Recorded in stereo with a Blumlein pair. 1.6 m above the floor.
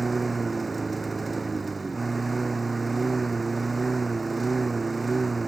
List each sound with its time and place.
0.0 s a lawn mower: 10° right